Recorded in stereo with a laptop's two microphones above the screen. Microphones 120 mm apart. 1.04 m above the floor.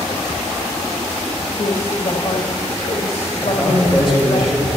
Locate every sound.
1.5 s a woman speaking: 70° left (ahead or behind), 1.9 m
3.4 s a man speaking: 45° left (ahead or behind), 5.5 m